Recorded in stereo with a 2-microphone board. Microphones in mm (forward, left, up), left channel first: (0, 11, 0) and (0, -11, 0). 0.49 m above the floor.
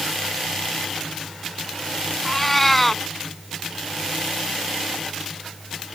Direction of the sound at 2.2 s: 15° left (ahead or behind).